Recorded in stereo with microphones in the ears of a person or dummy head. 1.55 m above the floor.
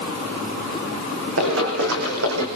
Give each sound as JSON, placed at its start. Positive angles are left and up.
{"t": 1.4, "sound": "running footsteps", "side_deg": -70, "distance_m": 6.0}